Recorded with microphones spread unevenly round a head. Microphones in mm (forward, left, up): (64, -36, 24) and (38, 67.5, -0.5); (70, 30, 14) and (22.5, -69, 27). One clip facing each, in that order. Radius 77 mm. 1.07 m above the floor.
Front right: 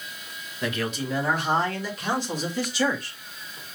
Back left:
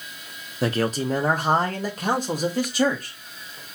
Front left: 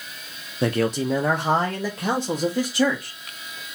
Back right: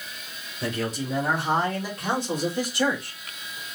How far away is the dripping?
No dripping in this recording.